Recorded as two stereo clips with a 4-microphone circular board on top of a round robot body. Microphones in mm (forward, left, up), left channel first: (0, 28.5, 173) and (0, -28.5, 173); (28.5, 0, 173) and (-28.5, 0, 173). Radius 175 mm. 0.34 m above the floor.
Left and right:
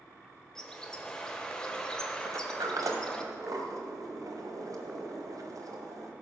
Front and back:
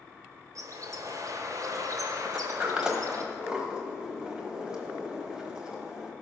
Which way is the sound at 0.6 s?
170° left.